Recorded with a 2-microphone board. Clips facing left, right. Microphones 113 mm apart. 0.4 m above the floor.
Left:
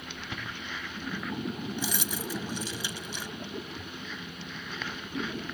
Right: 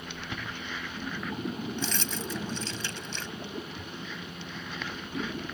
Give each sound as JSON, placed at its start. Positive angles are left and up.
{"t": 1.8, "sound": "keys jangling", "side_deg": 10}